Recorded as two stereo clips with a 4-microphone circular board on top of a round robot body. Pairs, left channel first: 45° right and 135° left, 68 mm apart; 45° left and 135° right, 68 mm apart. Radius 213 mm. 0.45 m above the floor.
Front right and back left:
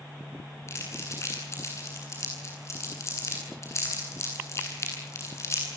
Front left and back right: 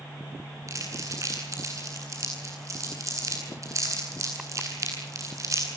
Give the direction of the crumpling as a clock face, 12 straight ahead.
3 o'clock.